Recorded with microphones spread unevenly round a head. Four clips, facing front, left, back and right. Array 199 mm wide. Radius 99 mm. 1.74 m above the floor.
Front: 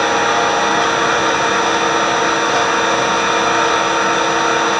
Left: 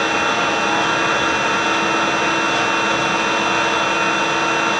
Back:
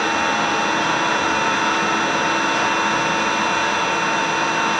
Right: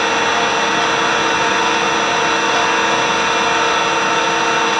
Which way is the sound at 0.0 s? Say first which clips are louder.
Right 2 dB, front 5 dB; 30° right.